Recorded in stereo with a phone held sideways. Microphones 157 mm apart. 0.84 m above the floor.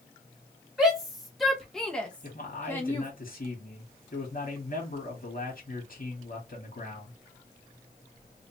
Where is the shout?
5° right (ahead or behind), 1.8 m; by 3.1 s 15° left (ahead or behind), 1.2 m.